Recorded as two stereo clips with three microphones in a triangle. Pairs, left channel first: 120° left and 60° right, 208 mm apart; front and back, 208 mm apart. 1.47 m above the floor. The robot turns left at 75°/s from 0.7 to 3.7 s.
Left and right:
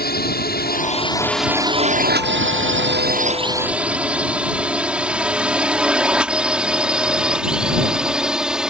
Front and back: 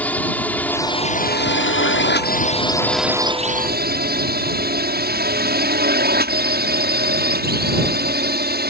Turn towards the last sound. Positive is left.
turn(degrees=-145)